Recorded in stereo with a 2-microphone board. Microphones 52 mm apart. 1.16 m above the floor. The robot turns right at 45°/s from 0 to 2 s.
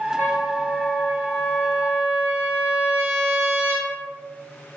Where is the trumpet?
35° left, 1.9 m; by 3.9 s 120° left, 1.9 m.